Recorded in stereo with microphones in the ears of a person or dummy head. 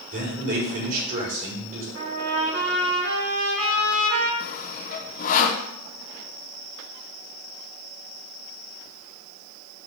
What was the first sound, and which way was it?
A man speaking, 50° right (ahead or behind).